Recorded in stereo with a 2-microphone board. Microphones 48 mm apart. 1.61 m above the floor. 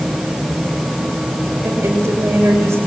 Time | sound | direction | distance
1.6 | a woman speaking | 65° right (ahead or behind) | 7 m